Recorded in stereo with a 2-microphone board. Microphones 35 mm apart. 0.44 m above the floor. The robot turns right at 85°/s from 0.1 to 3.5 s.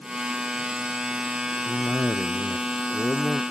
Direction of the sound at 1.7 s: 35° left.